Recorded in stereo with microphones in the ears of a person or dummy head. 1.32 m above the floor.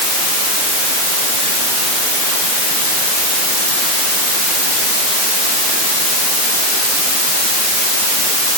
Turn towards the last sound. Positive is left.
No sound to turn to.